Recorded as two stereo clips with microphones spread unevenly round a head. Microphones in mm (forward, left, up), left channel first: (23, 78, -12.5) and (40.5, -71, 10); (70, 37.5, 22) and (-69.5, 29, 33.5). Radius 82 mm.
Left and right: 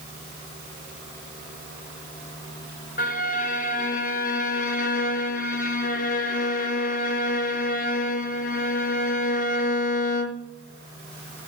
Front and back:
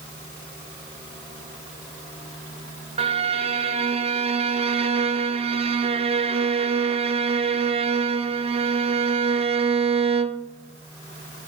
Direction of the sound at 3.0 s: 135° left.